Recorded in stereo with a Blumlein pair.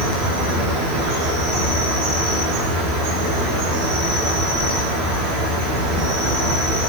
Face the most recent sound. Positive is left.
turn(degrees=-20)